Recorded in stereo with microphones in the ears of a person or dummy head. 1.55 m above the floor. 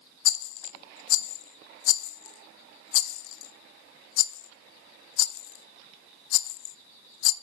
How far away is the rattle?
About 0.6 m.